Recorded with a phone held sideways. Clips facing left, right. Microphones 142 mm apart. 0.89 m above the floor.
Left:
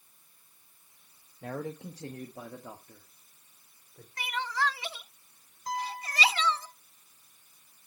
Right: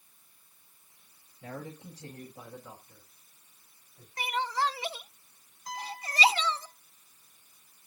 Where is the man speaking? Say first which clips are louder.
Left 5 dB; 55° left (ahead or behind), 0.9 m; by 4.1 s 80° left, 3 m.